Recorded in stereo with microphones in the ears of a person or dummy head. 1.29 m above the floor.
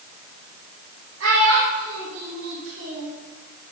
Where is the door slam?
No door slam in this recording.